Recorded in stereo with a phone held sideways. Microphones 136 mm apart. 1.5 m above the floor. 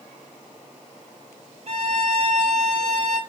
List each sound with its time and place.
1.7 s a violin: 50° right (ahead or behind), 0.7 m